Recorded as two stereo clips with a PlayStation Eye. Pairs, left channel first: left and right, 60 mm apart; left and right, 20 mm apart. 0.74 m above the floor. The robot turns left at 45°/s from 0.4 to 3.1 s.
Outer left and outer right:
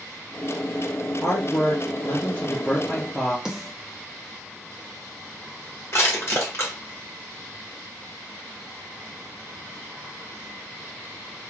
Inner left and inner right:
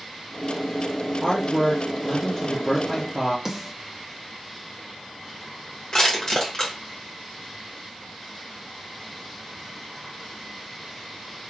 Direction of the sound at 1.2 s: 100° left.